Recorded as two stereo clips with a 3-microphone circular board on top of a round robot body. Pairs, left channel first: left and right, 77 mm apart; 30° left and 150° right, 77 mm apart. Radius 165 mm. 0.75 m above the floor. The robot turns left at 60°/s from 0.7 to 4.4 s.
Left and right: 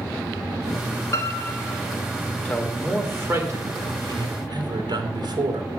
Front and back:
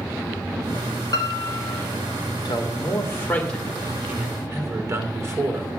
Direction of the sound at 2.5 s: 10° left.